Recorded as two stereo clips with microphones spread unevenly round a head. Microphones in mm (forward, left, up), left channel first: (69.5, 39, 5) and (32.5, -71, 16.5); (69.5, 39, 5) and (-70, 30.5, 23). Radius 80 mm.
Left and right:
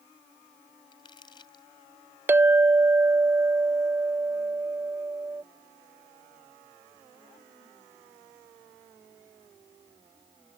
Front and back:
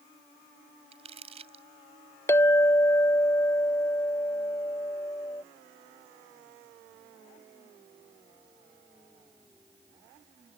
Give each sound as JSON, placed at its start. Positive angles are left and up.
{"t": 0.9, "sound": "crumpling", "azimuth_deg": 140}
{"t": 2.3, "sound": "a clink", "azimuth_deg": -70}